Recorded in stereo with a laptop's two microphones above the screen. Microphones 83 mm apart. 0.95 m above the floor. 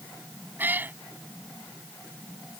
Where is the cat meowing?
20° right (ahead or behind).